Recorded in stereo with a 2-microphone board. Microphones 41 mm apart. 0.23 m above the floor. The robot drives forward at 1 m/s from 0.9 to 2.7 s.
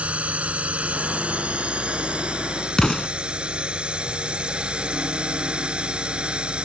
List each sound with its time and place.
0.0 s a drone: 30° right (ahead or behind); by 6.7 s 25° right (ahead or behind)
2.8 s an explosion: 20° left (ahead or behind)